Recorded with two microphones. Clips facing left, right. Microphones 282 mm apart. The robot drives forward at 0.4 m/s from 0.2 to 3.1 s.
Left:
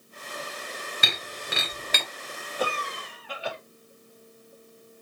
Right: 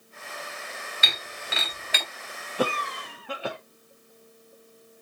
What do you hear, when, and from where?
1.0 s breaking glass: 55° left (ahead or behind), 2 m; by 2.0 s 50° left (ahead or behind), 2.5 m
2.6 s a cough: 75° right (ahead or behind), 0.7 m; by 3.6 s 60° right (ahead or behind), 0.8 m